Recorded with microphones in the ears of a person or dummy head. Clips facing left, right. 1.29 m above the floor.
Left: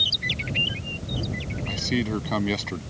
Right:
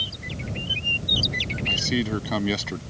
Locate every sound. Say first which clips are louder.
1.7 s a man speaking: even; centre (ahead or behind)